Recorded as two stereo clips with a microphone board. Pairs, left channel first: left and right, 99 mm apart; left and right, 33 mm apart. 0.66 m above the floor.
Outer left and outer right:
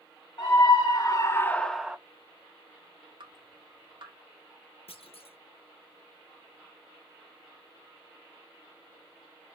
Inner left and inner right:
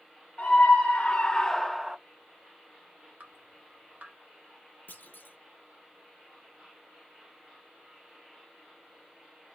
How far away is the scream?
About 1.0 m.